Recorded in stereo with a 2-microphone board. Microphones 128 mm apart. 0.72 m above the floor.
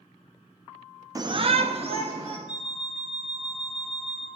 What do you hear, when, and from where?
1.1 s a shout: 30° right (ahead or behind), 0.6 m; by 2.4 s 45° right (ahead or behind), 1.5 m
2.5 s an alarm clock: 60° right (ahead or behind), 3.5 m